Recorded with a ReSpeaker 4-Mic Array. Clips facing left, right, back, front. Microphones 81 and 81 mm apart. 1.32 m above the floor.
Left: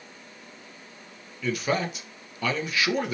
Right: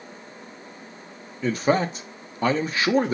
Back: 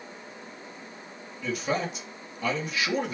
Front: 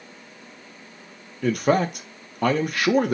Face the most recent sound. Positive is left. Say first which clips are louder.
# right 5 dB, front 9 dB
turn(degrees=-30)